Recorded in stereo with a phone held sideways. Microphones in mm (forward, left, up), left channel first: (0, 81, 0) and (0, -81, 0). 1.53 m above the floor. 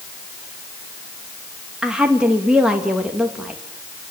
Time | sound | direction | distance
1.8 | a woman speaking | 5° right (ahead or behind) | 2.5 m